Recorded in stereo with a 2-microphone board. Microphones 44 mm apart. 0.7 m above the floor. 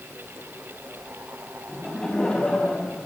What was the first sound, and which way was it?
Laughter, 10° left (ahead or behind).